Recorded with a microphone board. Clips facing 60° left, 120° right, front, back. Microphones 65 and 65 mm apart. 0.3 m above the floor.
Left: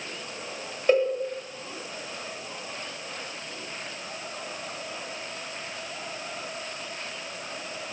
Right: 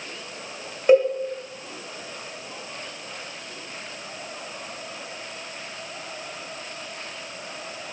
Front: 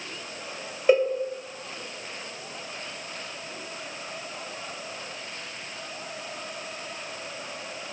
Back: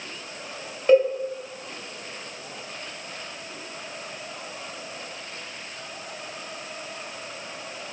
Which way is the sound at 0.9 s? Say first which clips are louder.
Right 6 dB, back 3 dB; 65° right.